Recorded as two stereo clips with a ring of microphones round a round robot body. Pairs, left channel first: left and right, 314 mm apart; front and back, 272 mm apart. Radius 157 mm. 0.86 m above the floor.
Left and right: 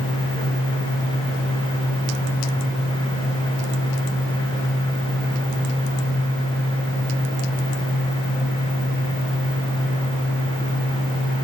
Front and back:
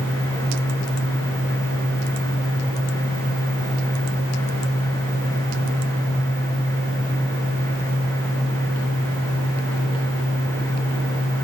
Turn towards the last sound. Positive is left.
No sound to turn to.